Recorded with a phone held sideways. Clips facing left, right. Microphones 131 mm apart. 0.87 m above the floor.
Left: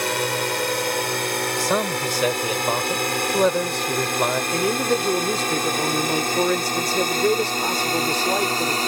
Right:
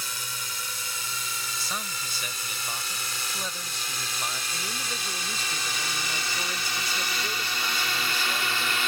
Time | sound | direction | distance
0.0 | a drone | 70° left (ahead or behind) | ?
1.6 | a man speaking | 75° left (ahead or behind) | ?
4.5 | a man speaking | 70° left (ahead or behind) | ?